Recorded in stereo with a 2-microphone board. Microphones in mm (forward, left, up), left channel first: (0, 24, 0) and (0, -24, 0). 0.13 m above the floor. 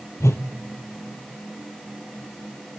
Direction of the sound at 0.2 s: 75° left (ahead or behind).